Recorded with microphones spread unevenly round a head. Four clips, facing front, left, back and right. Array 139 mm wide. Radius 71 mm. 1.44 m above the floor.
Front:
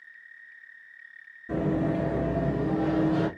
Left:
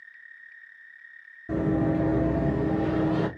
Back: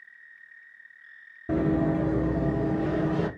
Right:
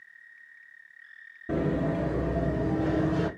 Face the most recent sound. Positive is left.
turn(degrees=75)